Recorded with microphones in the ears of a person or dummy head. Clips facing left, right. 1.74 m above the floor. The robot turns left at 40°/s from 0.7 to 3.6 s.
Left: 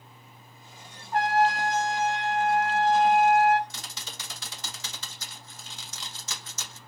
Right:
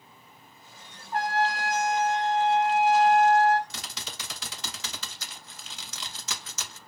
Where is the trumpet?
100° right, 0.7 m; by 3.6 s 160° left, 0.7 m.